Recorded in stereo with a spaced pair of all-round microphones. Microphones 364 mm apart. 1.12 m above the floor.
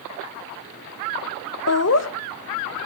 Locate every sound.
1.7 s laughter: 45° left (ahead or behind), 0.7 m